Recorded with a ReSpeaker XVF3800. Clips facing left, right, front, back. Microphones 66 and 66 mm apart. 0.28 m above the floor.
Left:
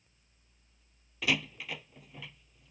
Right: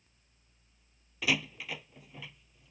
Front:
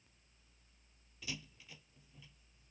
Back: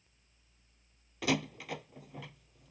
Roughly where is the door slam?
Behind.